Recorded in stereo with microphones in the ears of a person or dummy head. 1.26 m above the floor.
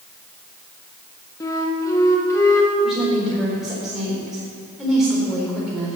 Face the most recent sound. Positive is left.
turn(degrees=-5)  # may be behind; listen again after turning